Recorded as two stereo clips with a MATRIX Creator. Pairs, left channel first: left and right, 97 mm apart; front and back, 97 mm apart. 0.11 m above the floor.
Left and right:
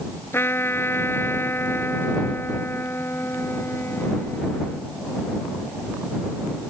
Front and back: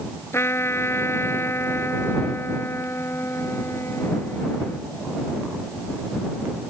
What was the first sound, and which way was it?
A trumpet, 45° left.